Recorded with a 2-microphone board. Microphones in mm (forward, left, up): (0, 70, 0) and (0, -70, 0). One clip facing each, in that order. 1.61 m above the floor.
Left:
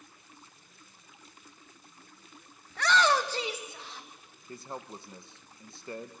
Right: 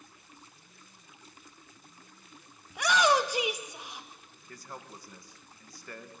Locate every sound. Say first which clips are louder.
2.7 s a shout: right 1 dB; 15° right (ahead or behind), 1.7 m
4.5 s a man speaking: left 5 dB; 25° left (ahead or behind), 1.2 m